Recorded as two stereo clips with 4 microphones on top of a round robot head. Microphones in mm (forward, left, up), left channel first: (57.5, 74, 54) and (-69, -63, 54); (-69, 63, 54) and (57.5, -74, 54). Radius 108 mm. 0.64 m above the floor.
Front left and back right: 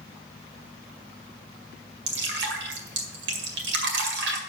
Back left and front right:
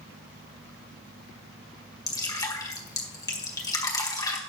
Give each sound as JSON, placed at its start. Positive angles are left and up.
{"t": 2.1, "sound": "dripping", "azimuth_deg": -155, "distance_m": 2.0}